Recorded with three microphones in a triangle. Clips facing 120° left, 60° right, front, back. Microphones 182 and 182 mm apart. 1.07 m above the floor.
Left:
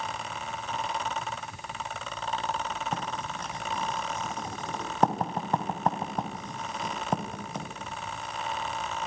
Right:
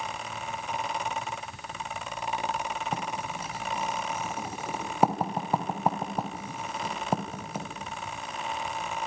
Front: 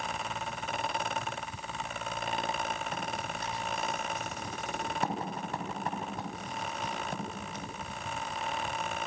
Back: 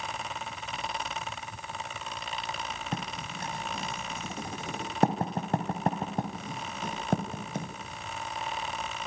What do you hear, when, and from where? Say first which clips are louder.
2.9 s writing: right 1 dB, even; 145° right, 3 m